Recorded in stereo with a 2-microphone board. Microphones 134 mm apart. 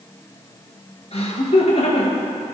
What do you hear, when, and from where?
1.1 s laughter: 50° left (ahead or behind), 1.9 m